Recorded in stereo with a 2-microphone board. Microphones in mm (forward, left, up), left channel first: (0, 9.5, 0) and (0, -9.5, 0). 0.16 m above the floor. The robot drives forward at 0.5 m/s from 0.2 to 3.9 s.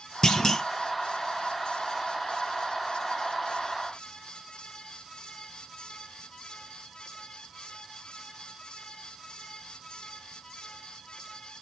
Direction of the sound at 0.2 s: 35° left (ahead or behind).